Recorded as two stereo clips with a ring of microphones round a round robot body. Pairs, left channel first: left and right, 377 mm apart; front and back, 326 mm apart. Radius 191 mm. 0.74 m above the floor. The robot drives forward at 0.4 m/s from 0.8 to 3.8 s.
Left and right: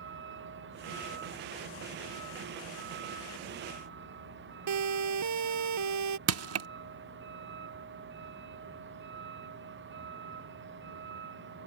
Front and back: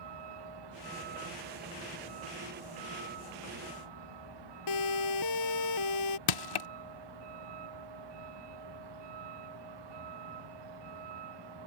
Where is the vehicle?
150° right; by 11.7 s 155° right.